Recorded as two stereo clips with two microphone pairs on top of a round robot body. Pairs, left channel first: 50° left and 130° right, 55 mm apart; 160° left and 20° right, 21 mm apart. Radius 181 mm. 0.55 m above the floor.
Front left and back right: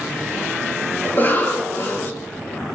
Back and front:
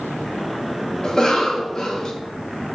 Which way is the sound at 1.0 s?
105° left.